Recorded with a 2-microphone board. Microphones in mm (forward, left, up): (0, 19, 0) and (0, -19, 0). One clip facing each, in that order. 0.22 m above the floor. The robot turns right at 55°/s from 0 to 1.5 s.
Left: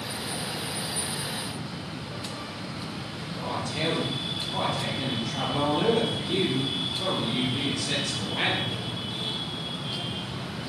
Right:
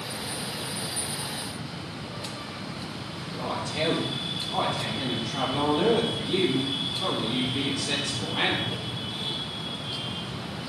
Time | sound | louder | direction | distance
3.3 | a man speaking | right 1 dB | 5° left (ahead or behind) | 4 m